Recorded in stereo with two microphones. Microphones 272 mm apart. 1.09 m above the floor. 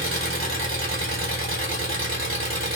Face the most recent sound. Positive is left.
turn(degrees=-50)  # may be behind; listen again after turning